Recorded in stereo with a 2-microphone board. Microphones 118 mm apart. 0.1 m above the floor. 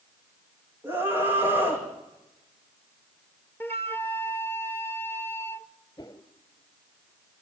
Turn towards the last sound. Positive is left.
turn(degrees=40)  # may be behind; listen again after turning